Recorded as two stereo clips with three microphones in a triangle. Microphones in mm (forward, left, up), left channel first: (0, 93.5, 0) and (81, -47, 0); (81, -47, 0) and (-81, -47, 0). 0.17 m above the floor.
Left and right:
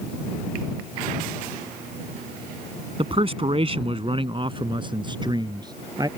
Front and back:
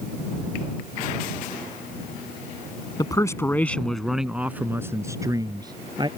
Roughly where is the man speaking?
Ahead right.